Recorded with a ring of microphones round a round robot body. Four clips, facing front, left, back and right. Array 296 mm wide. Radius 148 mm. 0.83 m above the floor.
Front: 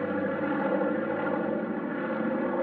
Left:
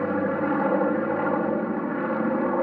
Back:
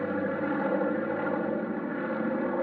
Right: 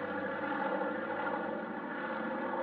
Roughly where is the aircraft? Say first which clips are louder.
Left 12 dB, front 1 dB; left.